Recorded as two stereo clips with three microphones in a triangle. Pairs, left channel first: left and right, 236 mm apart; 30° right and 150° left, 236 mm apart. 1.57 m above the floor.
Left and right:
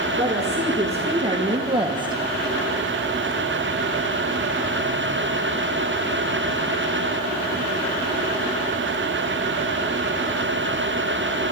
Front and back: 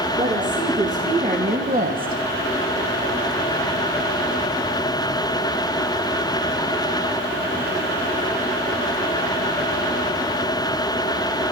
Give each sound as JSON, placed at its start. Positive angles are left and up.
{"t": 0.2, "sound": "a woman speaking", "azimuth_deg": -150, "distance_m": 2.0}